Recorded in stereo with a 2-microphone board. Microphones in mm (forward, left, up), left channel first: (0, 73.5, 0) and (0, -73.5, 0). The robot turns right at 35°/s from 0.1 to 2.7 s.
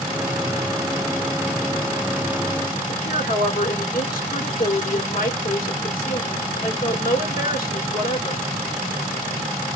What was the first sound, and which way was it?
A woman speaking, 70° left (ahead or behind).